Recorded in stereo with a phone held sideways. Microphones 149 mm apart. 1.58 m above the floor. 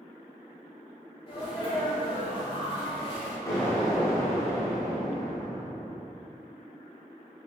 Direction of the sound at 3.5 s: 20° left (ahead or behind).